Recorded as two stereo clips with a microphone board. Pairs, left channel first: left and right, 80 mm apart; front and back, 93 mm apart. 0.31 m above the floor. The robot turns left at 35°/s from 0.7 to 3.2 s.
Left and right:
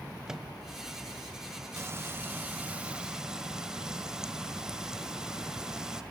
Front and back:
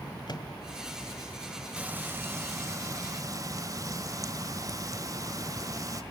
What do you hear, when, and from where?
0.3 s a microwave: 10° right, 1.4 m
1.8 s frying: 115° right, 1.6 m; by 6.0 s 165° right, 1.6 m